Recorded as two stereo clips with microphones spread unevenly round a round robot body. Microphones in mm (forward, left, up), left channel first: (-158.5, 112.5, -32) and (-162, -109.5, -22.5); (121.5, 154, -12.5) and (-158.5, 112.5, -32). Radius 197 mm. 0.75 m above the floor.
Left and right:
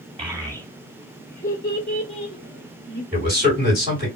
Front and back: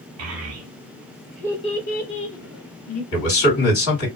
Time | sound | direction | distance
0.2 | a child speaking | 160° right | 0.9 m
3.1 | a man speaking | 10° left | 1.9 m